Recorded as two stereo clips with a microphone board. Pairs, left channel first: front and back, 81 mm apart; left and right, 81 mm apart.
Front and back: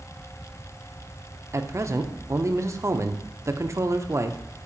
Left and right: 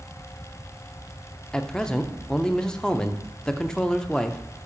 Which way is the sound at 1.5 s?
165° left.